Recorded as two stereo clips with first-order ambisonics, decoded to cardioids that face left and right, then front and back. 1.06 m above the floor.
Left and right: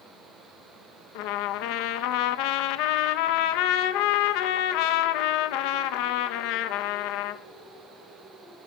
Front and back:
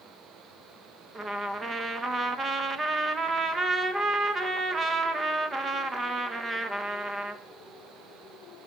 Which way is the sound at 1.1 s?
105° left.